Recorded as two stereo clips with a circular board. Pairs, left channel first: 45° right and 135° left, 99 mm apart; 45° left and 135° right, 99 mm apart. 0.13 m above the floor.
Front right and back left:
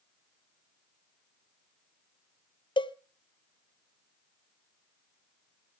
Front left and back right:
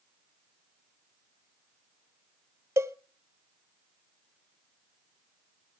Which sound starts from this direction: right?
A cowbell, at 2.8 s.